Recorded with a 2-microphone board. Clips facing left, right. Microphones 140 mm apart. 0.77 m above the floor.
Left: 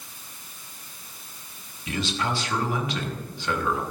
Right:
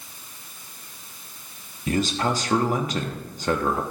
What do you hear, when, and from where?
1.9 s a man speaking: 45° right (ahead or behind), 1.0 m